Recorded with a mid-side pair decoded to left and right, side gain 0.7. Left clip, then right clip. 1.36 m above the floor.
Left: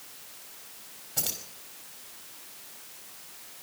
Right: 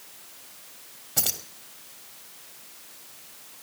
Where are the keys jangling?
40° right, 2 m.